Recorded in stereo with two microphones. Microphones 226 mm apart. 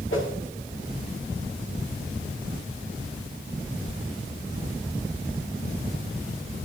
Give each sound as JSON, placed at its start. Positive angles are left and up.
{"t": 0.1, "sound": "a whoosh", "side_deg": 65, "distance_m": 3.0}